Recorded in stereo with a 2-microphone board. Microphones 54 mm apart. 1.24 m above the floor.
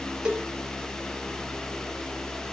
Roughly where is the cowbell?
Centre.